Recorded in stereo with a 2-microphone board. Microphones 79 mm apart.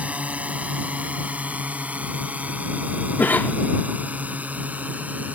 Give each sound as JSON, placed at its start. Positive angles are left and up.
{"t": 0.0, "sound": "a drone", "side_deg": -20}
{"t": 3.2, "sound": "a cough", "side_deg": 25}